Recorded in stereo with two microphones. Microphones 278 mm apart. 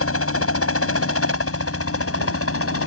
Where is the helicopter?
55° left (ahead or behind).